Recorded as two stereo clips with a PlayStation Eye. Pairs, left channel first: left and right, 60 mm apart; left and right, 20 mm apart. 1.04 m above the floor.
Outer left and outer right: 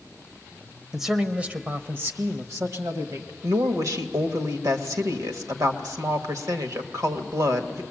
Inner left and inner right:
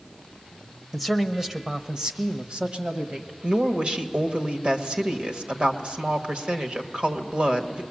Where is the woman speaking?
70° right (ahead or behind), 1.4 m.